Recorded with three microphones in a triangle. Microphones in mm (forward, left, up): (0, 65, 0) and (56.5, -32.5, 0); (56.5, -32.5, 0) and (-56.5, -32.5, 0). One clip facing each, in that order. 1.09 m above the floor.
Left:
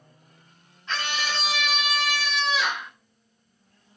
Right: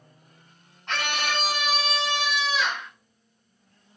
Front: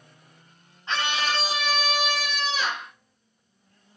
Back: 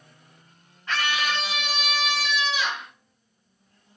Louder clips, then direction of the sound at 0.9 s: Right 2 dB, even; 65° right.